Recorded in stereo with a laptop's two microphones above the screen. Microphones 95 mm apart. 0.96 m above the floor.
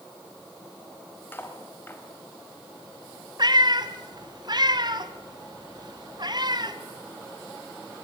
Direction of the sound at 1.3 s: 25° left (ahead or behind).